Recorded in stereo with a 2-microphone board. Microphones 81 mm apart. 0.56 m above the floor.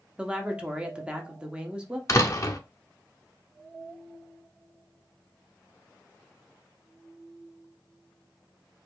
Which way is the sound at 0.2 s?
15° right (ahead or behind).